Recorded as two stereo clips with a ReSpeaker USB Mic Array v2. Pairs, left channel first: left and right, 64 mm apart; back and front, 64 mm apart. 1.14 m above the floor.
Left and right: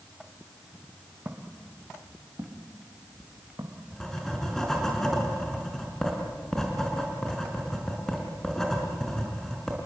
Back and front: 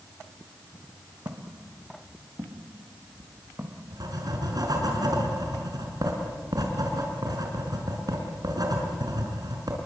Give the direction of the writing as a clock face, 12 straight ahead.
12 o'clock.